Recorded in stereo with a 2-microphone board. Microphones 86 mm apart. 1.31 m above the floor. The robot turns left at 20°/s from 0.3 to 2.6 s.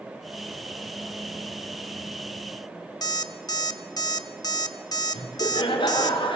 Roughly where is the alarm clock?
Left.